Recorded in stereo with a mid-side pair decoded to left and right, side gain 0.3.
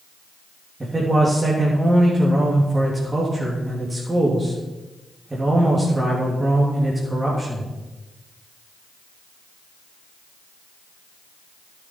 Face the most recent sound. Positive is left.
turn(degrees=-25)